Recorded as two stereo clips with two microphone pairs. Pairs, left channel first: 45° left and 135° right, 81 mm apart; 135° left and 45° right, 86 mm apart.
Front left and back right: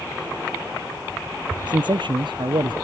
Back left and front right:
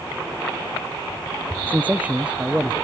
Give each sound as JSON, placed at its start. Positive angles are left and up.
{"t": 1.7, "sound": "a man speaking", "azimuth_deg": -115}